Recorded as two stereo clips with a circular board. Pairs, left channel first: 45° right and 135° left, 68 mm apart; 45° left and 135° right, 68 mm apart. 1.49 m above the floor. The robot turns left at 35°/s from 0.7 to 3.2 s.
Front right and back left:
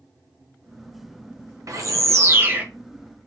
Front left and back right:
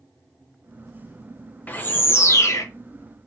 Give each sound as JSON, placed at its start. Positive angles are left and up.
{"t": 1.7, "sound": "a bird", "azimuth_deg": 105, "distance_m": 0.8}